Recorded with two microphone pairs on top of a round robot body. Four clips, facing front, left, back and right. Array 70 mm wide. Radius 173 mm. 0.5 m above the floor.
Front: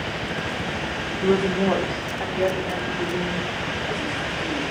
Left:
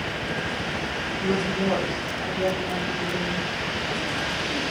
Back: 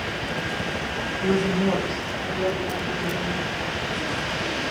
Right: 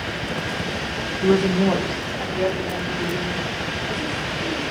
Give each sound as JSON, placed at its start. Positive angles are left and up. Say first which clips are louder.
{"t": 1.2, "sound": "a woman speaking", "louder": "right 7 dB, front 2 dB", "azimuth_deg": -45, "distance_m": 1.6}